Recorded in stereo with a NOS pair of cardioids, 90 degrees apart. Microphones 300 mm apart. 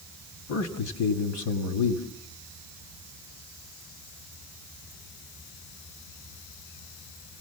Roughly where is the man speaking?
Ahead left.